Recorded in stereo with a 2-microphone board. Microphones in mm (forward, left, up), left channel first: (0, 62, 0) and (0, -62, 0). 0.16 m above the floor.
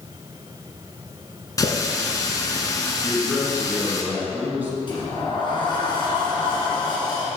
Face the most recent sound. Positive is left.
turn(degrees=40)  # may be behind; listen again after turning